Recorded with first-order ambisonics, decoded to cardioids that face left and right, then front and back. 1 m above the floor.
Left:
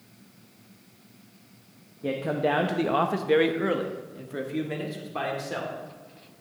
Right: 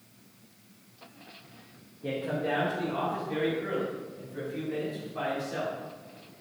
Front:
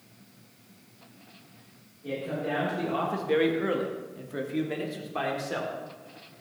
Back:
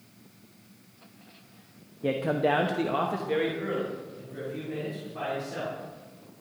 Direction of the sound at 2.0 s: 160° left.